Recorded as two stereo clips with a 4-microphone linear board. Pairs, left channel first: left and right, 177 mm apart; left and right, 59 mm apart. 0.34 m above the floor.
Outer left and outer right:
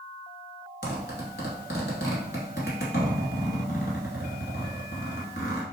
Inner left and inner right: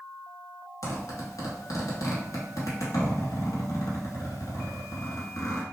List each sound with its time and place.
0.8 s a zipper: 85° left, 0.9 m